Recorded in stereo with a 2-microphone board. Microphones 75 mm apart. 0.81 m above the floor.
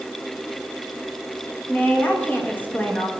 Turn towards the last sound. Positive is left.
turn(degrees=25)  # may be behind; listen again after turning